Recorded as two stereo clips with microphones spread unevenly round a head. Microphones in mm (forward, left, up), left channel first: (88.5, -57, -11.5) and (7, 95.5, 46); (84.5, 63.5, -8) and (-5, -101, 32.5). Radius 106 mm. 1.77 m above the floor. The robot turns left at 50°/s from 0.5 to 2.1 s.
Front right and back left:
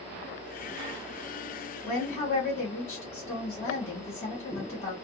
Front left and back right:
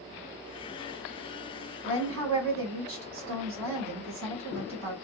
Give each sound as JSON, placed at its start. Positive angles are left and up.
{"t": 1.9, "sound": "a woman speaking", "azimuth_deg": -100, "distance_m": 1.8}